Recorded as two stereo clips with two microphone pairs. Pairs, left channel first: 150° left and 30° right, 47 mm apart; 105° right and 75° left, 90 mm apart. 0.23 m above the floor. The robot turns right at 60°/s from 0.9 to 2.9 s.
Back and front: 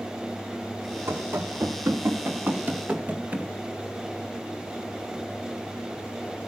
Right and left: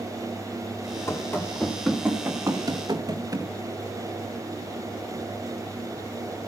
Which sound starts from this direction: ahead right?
Running footsteps, at 1.1 s.